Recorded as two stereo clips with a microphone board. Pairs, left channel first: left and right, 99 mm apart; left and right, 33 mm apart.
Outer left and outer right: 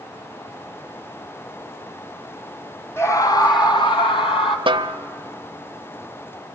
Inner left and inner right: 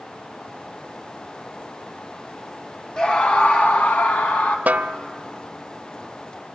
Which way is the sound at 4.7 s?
55° right (ahead or behind).